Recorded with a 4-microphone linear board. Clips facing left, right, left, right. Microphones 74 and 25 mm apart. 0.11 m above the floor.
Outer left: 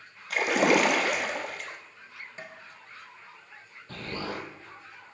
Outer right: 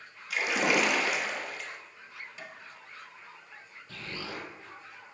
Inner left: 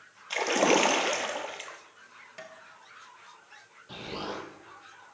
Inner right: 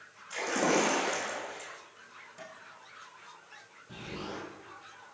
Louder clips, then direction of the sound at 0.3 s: Outer left 5 dB, inner left 4 dB; 60° left (ahead or behind).